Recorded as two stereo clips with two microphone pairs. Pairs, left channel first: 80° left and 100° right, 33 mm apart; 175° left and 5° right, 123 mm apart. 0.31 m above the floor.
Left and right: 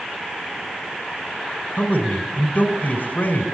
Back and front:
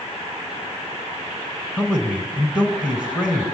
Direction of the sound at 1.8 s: 75° left.